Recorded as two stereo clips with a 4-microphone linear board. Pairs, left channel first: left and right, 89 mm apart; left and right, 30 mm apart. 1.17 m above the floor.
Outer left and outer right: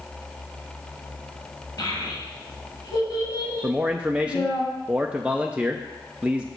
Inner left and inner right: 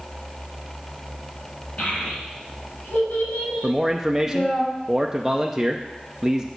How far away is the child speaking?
About 5 m.